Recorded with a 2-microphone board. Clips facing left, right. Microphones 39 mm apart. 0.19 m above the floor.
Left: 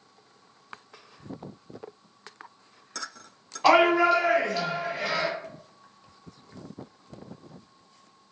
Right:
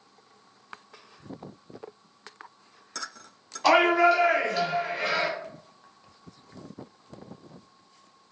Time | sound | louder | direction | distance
3.6 | a shout | even | 20° left (ahead or behind) | 1.2 m